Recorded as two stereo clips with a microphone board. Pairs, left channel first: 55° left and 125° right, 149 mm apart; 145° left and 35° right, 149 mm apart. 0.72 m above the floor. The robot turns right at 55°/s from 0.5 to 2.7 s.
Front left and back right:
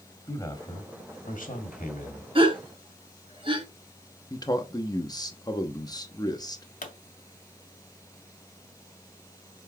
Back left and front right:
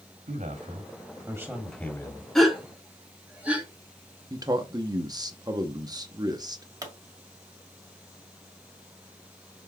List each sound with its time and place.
0.3 s a man speaking: 5° right, 1.4 m; by 2.2 s 95° left, 1.4 m
2.4 s a gasp: 130° right, 1.2 m; by 3.7 s 110° right, 1.2 m
4.3 s a man speaking: 10° left, 0.9 m
6.8 s a pop: 35° left, 1.4 m